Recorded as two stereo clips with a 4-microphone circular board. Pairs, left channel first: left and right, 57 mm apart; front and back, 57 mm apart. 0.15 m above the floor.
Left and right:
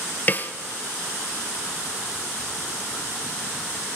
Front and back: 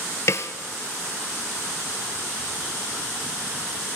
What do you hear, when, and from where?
0.3 s a snare drum: 35° left, 0.6 m